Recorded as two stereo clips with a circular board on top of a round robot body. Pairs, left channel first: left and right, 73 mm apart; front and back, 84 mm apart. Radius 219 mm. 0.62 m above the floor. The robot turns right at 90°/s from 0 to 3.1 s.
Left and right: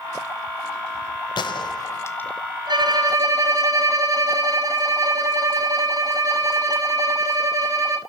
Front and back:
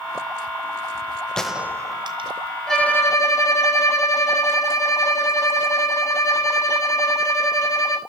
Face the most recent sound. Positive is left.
turn(degrees=-50)